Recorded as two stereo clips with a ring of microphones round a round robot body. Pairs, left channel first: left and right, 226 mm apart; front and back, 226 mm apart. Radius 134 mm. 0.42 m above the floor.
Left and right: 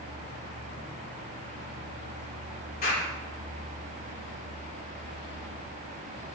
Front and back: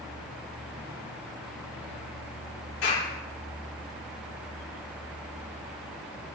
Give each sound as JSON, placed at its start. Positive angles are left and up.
{"t": 2.8, "sound": "a clap", "azimuth_deg": 35, "distance_m": 8.5}